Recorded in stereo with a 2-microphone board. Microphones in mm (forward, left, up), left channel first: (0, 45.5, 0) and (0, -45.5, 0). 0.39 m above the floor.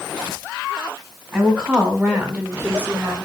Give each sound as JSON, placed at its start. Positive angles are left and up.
{"t": 1.3, "sound": "a woman speaking", "side_deg": -5, "distance_m": 1.6}